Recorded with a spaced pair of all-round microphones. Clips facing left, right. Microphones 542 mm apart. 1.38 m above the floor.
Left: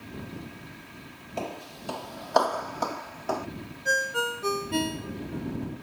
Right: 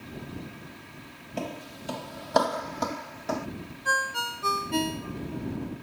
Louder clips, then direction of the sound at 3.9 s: Left 9 dB; 25° right (ahead or behind).